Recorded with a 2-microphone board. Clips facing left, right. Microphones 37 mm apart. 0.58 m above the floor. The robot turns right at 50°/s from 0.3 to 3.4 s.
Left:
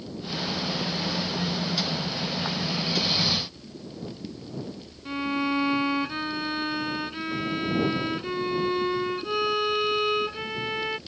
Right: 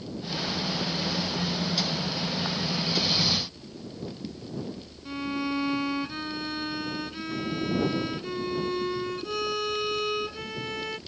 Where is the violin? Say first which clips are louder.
Left 3 dB; 25° left (ahead or behind).